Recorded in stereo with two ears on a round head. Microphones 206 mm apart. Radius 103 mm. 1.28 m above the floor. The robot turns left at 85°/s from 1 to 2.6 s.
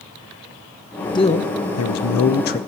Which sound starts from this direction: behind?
A man speaking, at 1.1 s.